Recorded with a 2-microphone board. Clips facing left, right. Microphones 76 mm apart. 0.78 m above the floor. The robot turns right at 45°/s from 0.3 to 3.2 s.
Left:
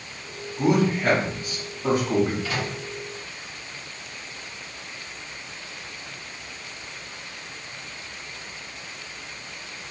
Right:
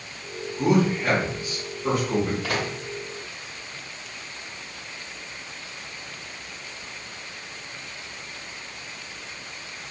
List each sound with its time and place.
0.6 s a man speaking: 25° left (ahead or behind), 1.7 m; by 2.3 s 50° left (ahead or behind), 1.7 m
2.4 s a microwave: 70° right (ahead or behind), 0.6 m; by 2.7 s 60° right (ahead or behind), 0.6 m